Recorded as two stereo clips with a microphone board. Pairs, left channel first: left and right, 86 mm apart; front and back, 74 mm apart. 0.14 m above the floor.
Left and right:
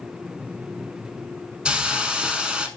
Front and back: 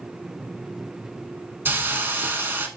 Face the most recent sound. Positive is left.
turn(degrees=-160)